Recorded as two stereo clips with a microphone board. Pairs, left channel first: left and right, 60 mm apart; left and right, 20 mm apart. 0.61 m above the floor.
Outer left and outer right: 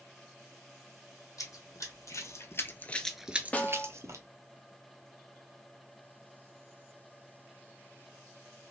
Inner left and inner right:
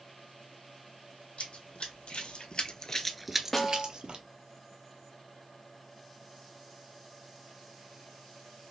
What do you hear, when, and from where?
1.4 s running footsteps: 70° left (ahead or behind), 1.6 m; by 4.2 s 60° right (ahead or behind), 1.1 m
3.5 s a snare drum: 25° left (ahead or behind), 0.6 m